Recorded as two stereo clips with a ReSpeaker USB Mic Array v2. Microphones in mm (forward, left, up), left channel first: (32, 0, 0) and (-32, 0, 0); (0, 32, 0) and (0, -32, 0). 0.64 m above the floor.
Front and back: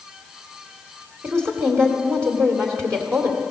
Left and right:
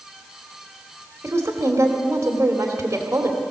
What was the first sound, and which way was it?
A woman speaking, 135° right.